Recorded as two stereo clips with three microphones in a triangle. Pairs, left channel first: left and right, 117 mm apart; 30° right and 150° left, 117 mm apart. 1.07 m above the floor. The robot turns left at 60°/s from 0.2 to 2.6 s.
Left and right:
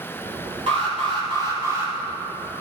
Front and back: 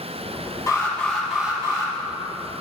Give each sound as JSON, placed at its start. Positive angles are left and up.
{"t": 0.7, "sound": "an alarm", "azimuth_deg": -90, "distance_m": 3.0}